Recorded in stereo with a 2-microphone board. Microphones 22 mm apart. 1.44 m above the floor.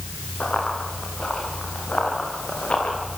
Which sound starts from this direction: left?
Running footsteps, at 0.4 s.